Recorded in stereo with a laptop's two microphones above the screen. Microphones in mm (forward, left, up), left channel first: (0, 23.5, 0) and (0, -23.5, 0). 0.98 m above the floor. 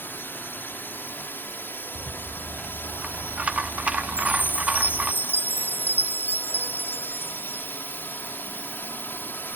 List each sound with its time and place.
0.0 s a drone: 50° left (ahead or behind)
1.9 s a rattle: 30° right (ahead or behind)
4.1 s a chime: 45° left (ahead or behind)